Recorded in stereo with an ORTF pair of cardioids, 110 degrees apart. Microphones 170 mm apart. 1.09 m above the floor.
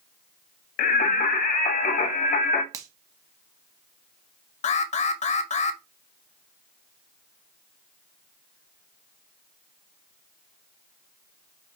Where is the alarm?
45° left, 0.6 m.